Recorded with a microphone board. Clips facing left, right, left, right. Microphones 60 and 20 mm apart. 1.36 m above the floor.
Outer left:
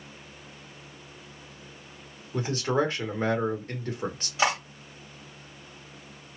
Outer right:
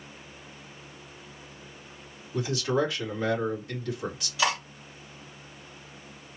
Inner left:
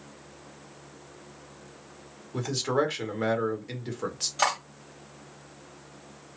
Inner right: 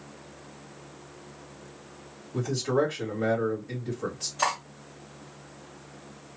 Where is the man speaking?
40° left (ahead or behind), 1.5 m.